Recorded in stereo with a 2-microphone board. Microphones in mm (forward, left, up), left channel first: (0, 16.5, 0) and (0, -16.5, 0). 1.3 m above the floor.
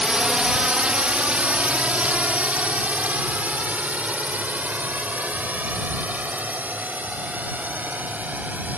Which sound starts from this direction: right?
A drone, at 0.0 s.